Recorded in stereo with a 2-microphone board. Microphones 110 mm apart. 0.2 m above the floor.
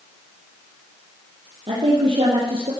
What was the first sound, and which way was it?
A woman speaking, 55° right (ahead or behind).